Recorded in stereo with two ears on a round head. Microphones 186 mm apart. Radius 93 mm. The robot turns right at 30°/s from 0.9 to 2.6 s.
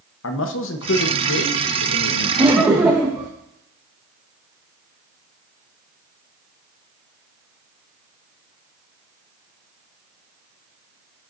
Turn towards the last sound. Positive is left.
turn(degrees=-5)  # may be behind; listen again after turning